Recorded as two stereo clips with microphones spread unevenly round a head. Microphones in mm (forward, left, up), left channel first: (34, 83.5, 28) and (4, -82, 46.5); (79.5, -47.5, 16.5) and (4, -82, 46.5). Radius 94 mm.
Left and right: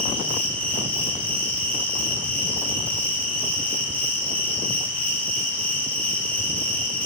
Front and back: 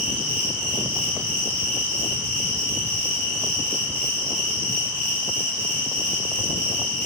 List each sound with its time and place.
0.0 s an insect: 160° left, 1.0 m